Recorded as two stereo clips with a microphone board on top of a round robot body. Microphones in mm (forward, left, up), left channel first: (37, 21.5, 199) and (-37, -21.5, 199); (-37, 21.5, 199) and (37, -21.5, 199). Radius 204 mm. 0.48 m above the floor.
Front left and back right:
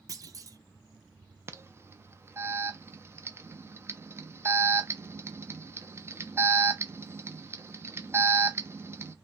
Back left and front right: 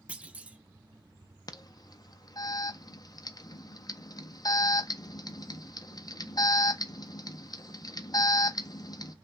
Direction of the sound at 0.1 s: 105° right.